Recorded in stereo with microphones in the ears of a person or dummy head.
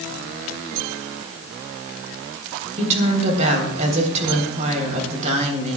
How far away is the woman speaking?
About 3.5 m.